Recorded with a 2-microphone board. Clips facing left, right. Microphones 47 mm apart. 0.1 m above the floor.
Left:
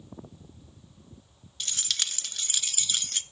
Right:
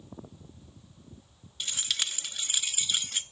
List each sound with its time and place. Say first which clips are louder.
1.6 s keys jangling: right 1 dB; 10° right (ahead or behind), 0.8 m